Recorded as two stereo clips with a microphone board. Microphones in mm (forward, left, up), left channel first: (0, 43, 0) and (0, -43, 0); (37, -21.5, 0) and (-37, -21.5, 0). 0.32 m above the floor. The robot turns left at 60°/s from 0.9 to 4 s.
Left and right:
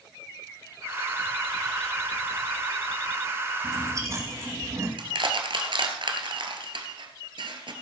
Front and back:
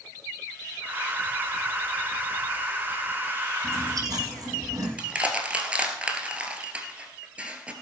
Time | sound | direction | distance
3.6 | chewing | 120° right | 4.5 m
5.0 | crushing | 105° right | 1.7 m